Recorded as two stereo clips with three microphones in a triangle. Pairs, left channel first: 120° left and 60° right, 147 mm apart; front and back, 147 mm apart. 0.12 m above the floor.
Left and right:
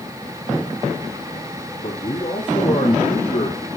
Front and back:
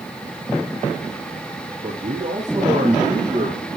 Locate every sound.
1.8 s a man speaking: 145° left, 5 m; by 3.8 s 135° left, 4 m